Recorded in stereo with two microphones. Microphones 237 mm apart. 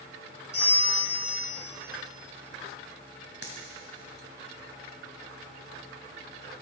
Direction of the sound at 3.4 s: 80° right.